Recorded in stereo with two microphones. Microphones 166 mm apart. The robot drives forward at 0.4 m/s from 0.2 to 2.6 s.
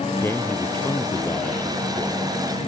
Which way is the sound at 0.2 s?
15° left (ahead or behind).